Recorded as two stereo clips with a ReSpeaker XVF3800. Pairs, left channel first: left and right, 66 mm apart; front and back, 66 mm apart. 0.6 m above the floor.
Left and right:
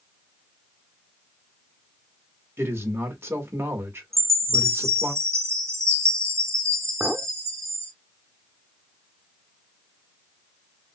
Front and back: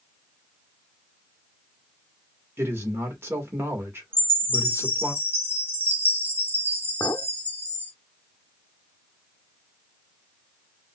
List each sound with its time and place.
2.6 s a man speaking: 135° right, 1.9 m
4.1 s a chime: 125° right, 1.0 m
7.0 s a clink: 25° right, 0.7 m